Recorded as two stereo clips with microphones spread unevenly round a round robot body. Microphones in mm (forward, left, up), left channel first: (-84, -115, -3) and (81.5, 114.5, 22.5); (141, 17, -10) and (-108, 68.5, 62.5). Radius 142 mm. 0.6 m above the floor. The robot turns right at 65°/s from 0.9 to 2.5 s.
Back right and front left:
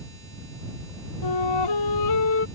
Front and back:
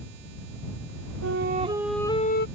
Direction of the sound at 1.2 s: 150° right.